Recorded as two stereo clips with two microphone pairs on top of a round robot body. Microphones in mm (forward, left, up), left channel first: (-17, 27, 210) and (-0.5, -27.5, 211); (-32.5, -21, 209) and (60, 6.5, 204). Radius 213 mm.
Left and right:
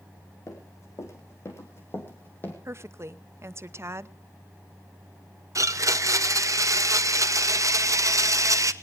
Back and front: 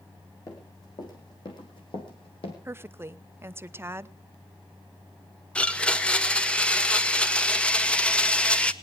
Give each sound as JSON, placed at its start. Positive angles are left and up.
{"t": 0.5, "sound": "running footsteps", "azimuth_deg": 140, "distance_m": 3.0}
{"t": 2.6, "sound": "a woman speaking", "azimuth_deg": -45, "distance_m": 1.0}
{"t": 5.5, "sound": "a blender", "azimuth_deg": -85, "distance_m": 1.1}